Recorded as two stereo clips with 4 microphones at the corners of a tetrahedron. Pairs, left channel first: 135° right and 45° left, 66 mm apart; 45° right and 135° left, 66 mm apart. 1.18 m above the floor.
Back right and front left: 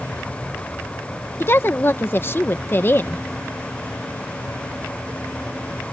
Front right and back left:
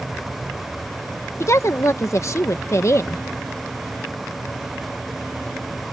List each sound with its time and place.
1.4 s a woman speaking: 80° right